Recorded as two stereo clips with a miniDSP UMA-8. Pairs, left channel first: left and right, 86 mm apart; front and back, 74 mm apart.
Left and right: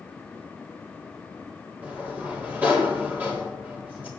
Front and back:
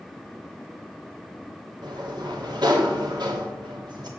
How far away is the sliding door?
About 3 m.